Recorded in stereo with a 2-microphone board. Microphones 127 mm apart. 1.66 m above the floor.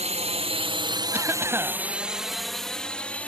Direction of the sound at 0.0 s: 60° right (ahead or behind).